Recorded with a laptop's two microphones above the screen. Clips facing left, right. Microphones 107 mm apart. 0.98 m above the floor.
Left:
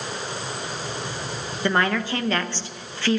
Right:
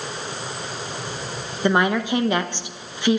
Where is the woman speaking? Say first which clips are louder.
Right 3 dB; 15° right (ahead or behind), 0.8 m.